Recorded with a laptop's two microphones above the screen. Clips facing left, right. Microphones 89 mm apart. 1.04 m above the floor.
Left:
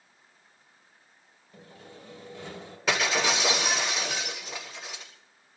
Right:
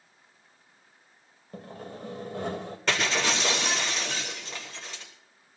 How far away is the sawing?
About 2.5 m.